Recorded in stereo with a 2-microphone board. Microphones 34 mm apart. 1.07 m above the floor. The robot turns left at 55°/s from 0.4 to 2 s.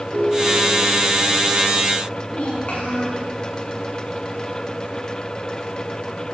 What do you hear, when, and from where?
0.1 s a ringtone: 80° right, 7 m; by 1.1 s 115° right, 7 m
2.3 s a child speaking: 40° left (ahead or behind), 7.5 m